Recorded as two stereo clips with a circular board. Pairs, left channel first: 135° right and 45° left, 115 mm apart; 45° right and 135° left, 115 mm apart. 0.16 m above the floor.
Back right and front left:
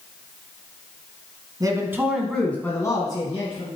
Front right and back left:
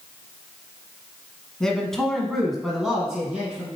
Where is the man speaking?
35° left, 1.2 m; by 3.7 s 140° right, 1.7 m.